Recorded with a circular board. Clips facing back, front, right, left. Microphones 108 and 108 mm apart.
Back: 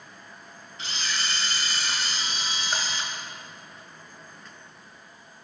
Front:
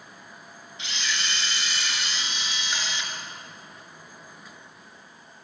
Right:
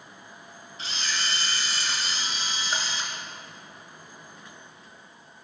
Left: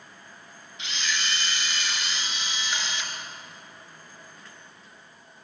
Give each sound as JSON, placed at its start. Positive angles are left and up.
{"t": 0.8, "sound": "a camera shutter", "azimuth_deg": -135, "distance_m": 3.5}